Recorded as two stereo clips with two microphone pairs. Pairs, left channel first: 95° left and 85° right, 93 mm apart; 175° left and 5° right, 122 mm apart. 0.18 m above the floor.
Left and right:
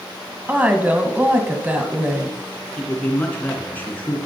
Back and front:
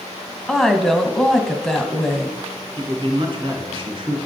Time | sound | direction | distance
0.5 | a woman speaking | 105° right | 1.0 m
2.8 | a man speaking | 25° left | 2.5 m